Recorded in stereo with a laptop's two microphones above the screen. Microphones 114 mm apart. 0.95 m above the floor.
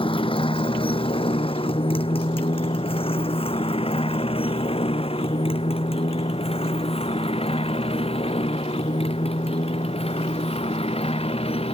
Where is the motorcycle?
50° left (ahead or behind); by 11.7 s 60° left (ahead or behind).